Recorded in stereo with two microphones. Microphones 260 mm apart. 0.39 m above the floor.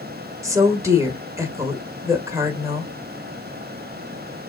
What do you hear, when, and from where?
0.4 s a woman speaking: 10° right (ahead or behind), 1.1 m